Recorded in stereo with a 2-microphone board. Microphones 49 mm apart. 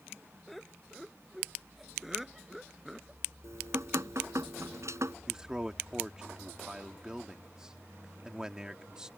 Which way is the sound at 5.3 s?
15° right (ahead or behind).